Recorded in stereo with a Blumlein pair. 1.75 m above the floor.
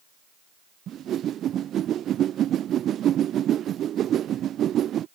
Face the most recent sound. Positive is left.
turn(degrees=-30)